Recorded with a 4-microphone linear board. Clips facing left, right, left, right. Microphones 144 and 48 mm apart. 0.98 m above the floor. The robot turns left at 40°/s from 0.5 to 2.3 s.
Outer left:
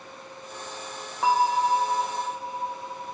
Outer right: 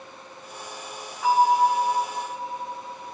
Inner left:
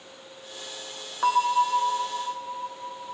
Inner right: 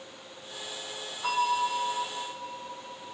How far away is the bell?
About 2.5 m.